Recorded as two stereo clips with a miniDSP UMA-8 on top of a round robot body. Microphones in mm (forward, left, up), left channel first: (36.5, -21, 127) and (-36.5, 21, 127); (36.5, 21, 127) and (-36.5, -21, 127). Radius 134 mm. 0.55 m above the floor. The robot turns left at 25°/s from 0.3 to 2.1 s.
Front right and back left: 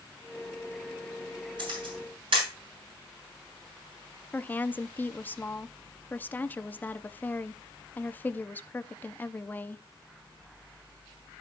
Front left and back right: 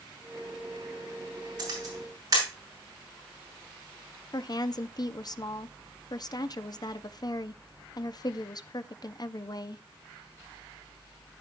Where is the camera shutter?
Straight behind, 6 m; by 2.5 s 165° left, 6 m.